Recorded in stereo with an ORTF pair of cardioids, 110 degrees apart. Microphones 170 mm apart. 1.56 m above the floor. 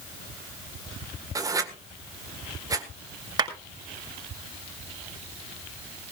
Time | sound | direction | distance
1.4 | writing | 20° right | 1.7 m
3.4 | a clap | 25° right | 5.5 m